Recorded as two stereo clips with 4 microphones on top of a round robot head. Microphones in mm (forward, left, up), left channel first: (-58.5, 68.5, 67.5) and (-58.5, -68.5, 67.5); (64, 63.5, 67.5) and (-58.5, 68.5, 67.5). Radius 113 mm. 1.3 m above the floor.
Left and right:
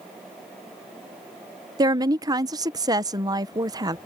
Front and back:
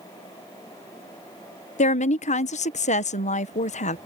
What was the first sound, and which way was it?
A woman speaking, 25° right.